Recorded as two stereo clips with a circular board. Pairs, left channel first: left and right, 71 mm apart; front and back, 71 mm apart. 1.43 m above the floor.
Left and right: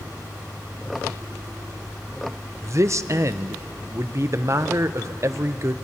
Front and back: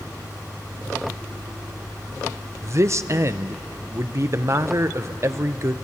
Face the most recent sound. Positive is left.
turn(degrees=-135)